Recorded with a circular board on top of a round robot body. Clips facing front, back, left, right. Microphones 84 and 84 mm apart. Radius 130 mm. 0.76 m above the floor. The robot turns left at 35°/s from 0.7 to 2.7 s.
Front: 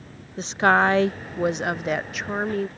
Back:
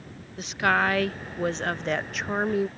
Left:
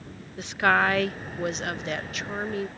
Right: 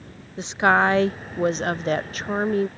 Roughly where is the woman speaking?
Ahead right.